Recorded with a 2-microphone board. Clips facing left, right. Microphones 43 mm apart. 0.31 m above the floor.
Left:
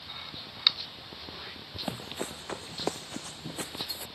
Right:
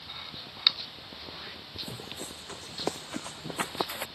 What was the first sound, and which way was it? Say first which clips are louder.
Running footsteps: left 6 dB; 55° left (ahead or behind).